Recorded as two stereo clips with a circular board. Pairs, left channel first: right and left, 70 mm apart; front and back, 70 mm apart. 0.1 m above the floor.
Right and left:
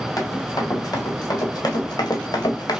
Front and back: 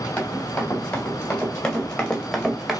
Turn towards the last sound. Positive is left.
turn(degrees=-95)